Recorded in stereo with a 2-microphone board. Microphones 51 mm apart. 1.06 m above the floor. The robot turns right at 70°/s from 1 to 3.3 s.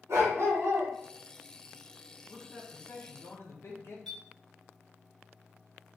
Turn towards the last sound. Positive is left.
turn(degrees=5)  # may be behind; listen again after turning